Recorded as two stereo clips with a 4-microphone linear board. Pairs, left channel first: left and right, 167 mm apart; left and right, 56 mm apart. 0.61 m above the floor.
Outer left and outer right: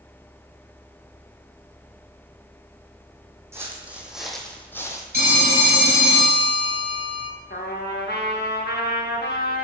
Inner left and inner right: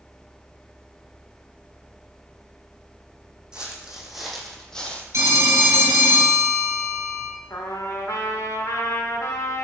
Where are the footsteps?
15° right (ahead or behind), 1.3 m; by 5.0 s 20° left (ahead or behind), 0.9 m.